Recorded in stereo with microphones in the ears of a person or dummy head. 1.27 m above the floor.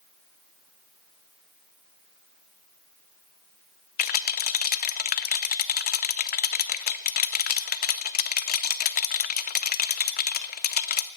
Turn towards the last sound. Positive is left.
turn(degrees=45)  # may be behind; listen again after turning